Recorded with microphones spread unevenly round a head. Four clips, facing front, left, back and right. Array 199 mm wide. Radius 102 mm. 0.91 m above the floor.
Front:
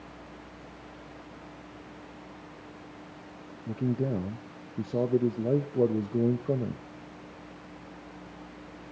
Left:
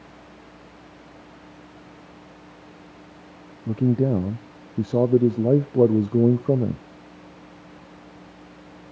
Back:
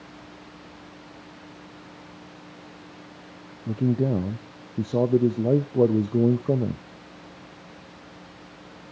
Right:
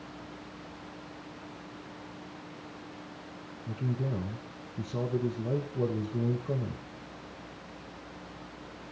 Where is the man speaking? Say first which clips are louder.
Left 14 dB, back 6 dB; 110° left, 0.7 m.